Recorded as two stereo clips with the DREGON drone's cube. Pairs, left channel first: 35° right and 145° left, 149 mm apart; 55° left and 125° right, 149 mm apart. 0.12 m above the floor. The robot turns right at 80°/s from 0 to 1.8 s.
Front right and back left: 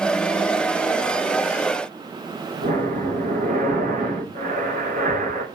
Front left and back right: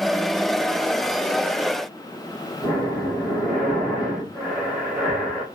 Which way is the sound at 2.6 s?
140° left.